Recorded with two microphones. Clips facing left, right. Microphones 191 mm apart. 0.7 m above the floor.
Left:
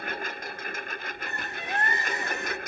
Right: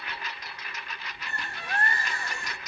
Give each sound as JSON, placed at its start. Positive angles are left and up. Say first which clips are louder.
{"t": 0.0, "sound": "a lawn mower", "louder": "left 6 dB", "side_deg": 55}
{"t": 1.3, "sound": "a bird", "louder": "even", "side_deg": 20}